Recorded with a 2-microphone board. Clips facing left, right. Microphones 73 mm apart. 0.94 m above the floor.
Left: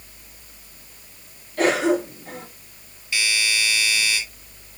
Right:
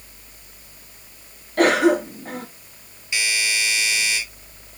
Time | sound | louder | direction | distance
1.6 | a cough | right 3 dB | 55° right (ahead or behind) | 1.6 m
3.1 | a doorbell | even | 20° right (ahead or behind) | 3.5 m